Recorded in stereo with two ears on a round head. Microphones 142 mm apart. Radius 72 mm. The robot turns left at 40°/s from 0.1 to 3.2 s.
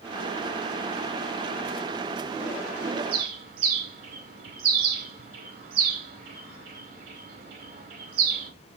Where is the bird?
65° right (ahead or behind), 0.9 m.